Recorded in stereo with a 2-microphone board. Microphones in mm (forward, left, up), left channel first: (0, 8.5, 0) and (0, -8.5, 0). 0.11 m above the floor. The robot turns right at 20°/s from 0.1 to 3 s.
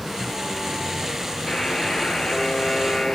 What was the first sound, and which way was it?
A buzzer, 40° left.